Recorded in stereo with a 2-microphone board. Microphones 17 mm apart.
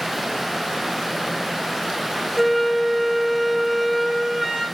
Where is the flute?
15° right (ahead or behind), 3.5 m.